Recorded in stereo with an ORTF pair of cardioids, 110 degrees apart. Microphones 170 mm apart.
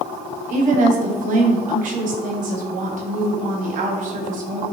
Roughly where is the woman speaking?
Ahead right.